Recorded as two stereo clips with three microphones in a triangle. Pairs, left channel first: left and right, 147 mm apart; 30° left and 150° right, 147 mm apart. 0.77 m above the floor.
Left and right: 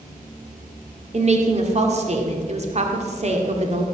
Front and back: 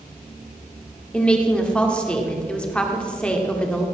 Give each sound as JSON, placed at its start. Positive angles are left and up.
{"t": 1.1, "sound": "a woman speaking", "azimuth_deg": -55, "distance_m": 1.7}